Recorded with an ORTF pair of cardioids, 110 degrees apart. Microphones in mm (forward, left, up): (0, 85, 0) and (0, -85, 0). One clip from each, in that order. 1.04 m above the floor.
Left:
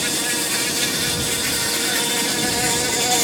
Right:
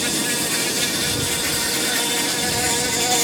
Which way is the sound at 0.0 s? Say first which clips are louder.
Even; 5° left.